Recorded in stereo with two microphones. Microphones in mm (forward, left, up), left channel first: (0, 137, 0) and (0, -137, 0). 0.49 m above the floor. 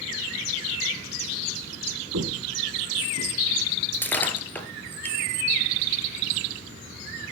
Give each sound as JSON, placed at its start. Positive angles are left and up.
{"t": 2.1, "sound": "footsteps", "side_deg": -80, "distance_m": 2.5}
{"t": 3.9, "sound": "breaking glass", "side_deg": 5, "distance_m": 1.9}